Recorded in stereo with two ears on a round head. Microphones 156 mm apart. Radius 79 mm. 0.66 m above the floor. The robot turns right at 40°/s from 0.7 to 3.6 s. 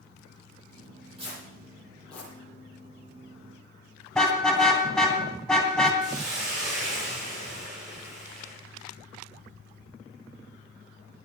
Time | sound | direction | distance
1.2 | tearing paper | 30° right (ahead or behind) | 9 m
4.2 | a car horn | 5° left (ahead or behind) | 3 m
6.0 | a hiss | 20° right (ahead or behind) | 9.5 m